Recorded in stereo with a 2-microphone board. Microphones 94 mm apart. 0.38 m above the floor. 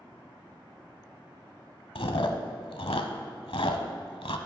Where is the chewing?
75° left (ahead or behind), 0.9 m.